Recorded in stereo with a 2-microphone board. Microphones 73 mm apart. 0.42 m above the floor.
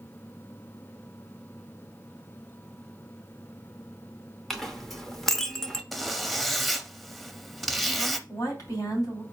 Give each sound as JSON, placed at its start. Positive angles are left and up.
{"t": 4.5, "sound": "a clink", "side_deg": 5, "distance_m": 0.8}
{"t": 5.9, "sound": "a zipper", "side_deg": 0, "distance_m": 0.6}
{"t": 8.3, "sound": "a woman speaking", "side_deg": 55, "distance_m": 3.0}